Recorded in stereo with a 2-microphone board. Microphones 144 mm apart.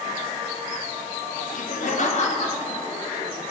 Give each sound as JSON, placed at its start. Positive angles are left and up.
{"t": 1.5, "sound": "laughter", "side_deg": 65, "distance_m": 0.7}